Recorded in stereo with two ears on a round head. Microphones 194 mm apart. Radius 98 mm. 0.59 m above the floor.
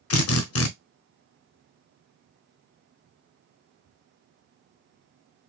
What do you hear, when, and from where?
0.1 s a drill: 70° left (ahead or behind), 0.7 m